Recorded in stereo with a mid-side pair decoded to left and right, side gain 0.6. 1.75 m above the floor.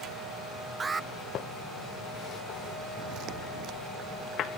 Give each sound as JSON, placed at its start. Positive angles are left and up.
{"t": 0.8, "sound": "an alarm", "azimuth_deg": -25}
{"t": 3.0, "sound": "footsteps", "azimuth_deg": -60}